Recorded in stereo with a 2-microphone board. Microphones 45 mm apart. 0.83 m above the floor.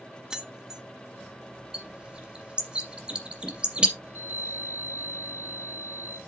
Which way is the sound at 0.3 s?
15° right (ahead or behind).